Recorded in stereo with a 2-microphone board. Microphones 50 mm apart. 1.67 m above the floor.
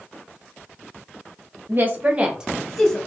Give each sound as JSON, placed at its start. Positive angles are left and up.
{"t": 1.7, "sound": "a woman speaking", "side_deg": -45, "distance_m": 0.8}